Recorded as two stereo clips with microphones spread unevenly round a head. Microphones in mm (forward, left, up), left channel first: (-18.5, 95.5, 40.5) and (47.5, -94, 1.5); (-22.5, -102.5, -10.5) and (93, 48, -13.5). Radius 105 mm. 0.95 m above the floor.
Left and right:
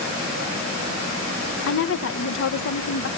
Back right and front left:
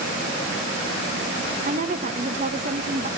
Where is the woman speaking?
100° left, 0.9 m.